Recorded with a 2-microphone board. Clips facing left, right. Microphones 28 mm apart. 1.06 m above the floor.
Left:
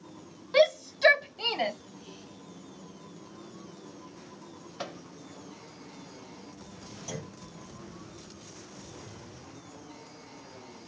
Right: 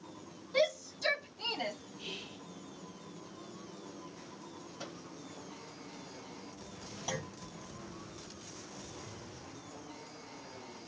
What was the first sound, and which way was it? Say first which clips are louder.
A shout: left 8 dB; 55° left (ahead or behind).